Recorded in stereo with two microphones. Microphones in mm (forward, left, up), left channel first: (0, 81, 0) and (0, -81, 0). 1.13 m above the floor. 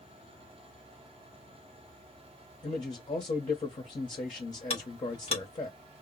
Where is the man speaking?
45° left (ahead or behind), 0.9 m.